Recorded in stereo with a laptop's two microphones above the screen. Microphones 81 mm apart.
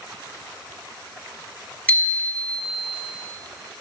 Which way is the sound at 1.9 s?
20° left (ahead or behind).